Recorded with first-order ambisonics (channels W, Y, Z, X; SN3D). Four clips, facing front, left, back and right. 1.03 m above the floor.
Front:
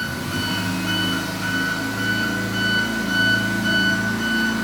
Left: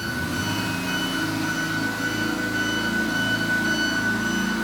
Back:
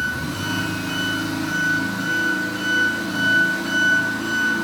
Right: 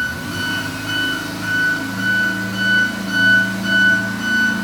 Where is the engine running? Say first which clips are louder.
Right 4 dB, even; 45° right, 1.8 m.